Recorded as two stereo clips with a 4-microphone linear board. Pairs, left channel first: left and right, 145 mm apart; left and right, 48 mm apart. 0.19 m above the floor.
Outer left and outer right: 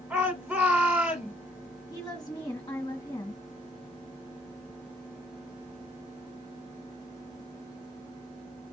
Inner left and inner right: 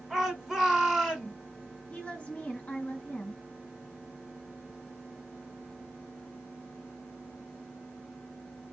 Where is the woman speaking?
25° left (ahead or behind), 1.9 m.